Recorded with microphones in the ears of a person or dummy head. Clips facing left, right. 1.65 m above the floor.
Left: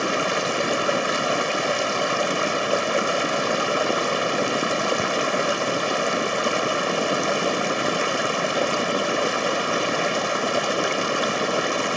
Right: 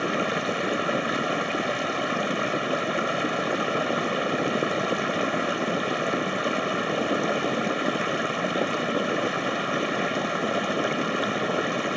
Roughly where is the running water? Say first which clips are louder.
Left 2 dB; left.